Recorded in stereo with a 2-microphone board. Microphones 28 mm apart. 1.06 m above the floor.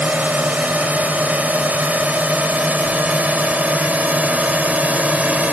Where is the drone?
70° right (ahead or behind); by 5.5 s 60° right (ahead or behind).